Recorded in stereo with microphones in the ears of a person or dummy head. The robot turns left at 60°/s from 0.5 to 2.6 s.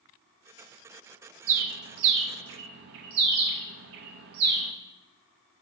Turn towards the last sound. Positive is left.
turn(degrees=-50)  # may be behind; listen again after turning